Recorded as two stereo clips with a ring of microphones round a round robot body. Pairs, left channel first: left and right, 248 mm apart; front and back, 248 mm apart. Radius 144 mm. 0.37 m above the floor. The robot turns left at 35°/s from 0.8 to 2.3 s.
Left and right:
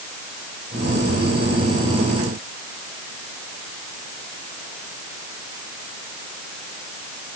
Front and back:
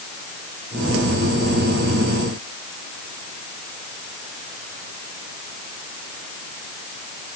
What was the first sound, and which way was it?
Only background noise.